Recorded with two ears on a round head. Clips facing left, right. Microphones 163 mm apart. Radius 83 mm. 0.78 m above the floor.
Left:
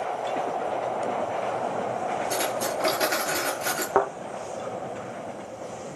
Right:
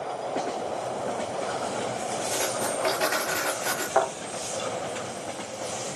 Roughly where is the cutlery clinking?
Left.